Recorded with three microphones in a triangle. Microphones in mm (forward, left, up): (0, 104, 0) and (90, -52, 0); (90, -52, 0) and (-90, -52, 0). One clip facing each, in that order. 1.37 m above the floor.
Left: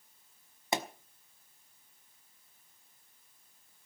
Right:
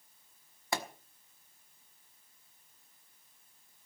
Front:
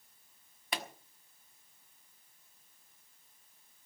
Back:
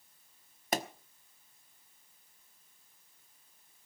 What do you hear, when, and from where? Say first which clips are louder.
0.7 s a pop: left 3 dB, back 7 dB; straight behind, 1.1 m